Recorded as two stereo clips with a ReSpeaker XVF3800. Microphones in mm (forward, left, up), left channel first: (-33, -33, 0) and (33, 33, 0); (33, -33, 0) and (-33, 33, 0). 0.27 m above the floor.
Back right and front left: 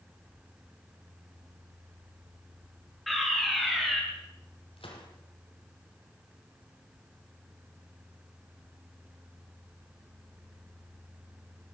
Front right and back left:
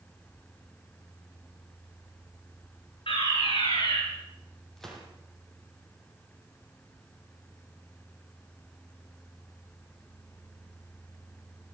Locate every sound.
3.1 s a fire alarm: 45° right, 7.5 m
4.8 s a gunshot: 130° right, 5.5 m